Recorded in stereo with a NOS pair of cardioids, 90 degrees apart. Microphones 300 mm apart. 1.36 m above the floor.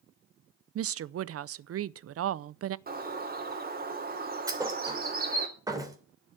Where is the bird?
30° right, 3 m.